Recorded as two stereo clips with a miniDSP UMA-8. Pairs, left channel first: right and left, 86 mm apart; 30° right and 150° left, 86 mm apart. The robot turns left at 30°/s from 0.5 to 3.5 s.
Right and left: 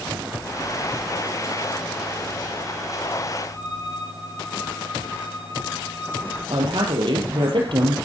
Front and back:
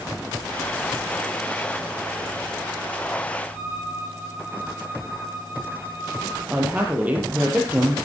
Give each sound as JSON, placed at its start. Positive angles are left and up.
{"t": 3.5, "sound": "a violin", "azimuth_deg": -60, "distance_m": 9.0}
{"t": 6.5, "sound": "a woman speaking", "azimuth_deg": 80, "distance_m": 4.0}